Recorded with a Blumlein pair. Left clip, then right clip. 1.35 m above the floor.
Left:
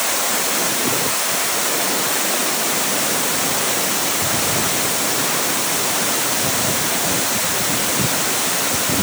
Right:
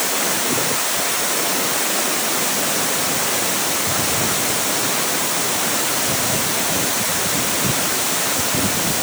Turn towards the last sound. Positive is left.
No sound to turn to.